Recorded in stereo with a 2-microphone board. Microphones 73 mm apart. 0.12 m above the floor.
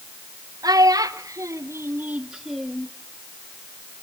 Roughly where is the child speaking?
Right.